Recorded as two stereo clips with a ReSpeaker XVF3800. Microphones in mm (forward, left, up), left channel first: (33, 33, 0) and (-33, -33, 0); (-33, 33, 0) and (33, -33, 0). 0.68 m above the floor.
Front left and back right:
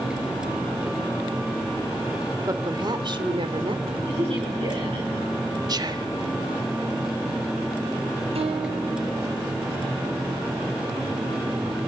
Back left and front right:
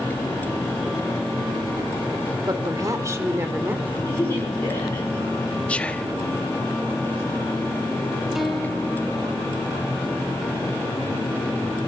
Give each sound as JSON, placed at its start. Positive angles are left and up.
{"t": 2.5, "sound": "a woman speaking", "azimuth_deg": -90, "distance_m": 2.5}
{"t": 4.1, "sound": "a woman speaking", "azimuth_deg": -160, "distance_m": 9.5}
{"t": 5.7, "sound": "whispering", "azimuth_deg": -155, "distance_m": 1.2}
{"t": 8.3, "sound": "a guitar", "azimuth_deg": -130, "distance_m": 3.5}